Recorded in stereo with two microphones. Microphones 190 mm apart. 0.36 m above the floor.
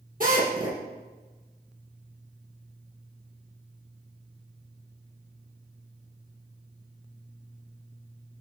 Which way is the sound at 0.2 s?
50° right (ahead or behind).